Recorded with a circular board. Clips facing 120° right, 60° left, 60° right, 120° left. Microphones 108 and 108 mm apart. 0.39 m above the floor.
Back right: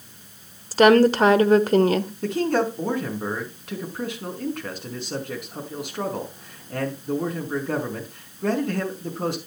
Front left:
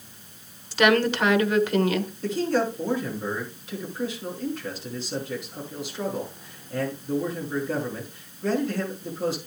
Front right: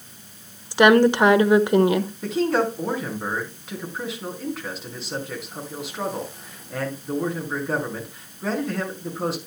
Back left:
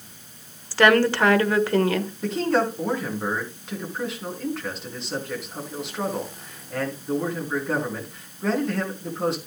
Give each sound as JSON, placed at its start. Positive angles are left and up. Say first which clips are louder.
{"t": 0.7, "sound": "a woman speaking", "louder": "back right 6 dB, front right 3 dB", "azimuth_deg": -120, "distance_m": 1.0}
{"t": 2.2, "sound": "a man speaking", "louder": "back right 1 dB, even", "azimuth_deg": -150, "distance_m": 4.5}